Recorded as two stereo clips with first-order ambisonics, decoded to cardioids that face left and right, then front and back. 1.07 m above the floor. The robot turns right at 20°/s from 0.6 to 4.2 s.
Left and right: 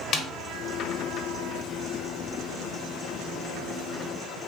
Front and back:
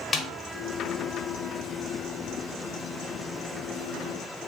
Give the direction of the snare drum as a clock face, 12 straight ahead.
10 o'clock.